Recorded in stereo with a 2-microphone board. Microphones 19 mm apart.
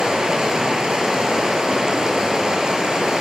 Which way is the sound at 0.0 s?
50° right (ahead or behind).